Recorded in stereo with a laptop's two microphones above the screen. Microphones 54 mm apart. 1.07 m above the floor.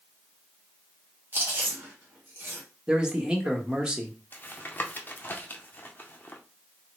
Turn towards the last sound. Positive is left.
turn(degrees=35)  # may be behind; listen again after turning